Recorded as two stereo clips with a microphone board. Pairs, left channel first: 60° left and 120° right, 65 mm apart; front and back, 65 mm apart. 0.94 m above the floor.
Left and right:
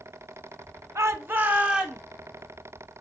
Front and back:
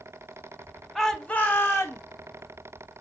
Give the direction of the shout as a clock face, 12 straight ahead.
3 o'clock.